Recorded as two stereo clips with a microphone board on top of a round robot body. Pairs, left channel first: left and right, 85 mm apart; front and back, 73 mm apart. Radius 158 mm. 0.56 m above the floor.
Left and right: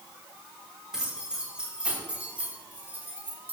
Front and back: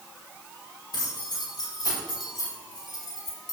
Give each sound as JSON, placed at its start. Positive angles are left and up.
{"t": 0.9, "sound": "keys jangling", "azimuth_deg": -10, "distance_m": 5.5}